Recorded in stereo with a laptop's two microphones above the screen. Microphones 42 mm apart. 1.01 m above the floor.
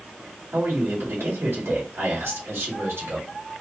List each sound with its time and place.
0.5 s a man speaking: 75° right (ahead or behind), 1.8 m